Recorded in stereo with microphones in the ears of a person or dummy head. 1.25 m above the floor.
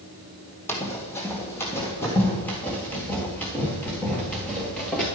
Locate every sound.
0.7 s running footsteps: 15° left (ahead or behind), 2 m; by 5.1 s 10° left (ahead or behind), 4.5 m